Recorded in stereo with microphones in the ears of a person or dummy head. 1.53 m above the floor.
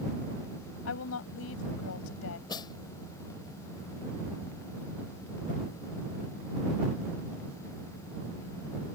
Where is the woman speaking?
85° left.